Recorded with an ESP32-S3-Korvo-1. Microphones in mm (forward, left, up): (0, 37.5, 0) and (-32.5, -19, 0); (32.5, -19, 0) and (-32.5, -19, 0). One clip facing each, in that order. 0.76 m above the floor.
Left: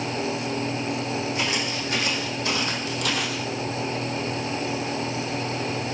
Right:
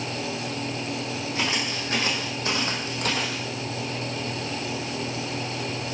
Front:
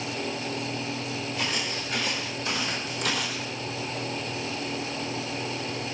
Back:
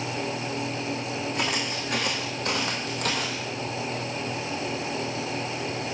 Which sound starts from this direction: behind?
Footsteps, at 1.4 s.